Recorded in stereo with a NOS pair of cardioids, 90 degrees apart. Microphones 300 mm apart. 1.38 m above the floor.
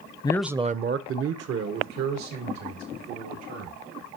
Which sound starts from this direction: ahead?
A man speaking, at 0.2 s.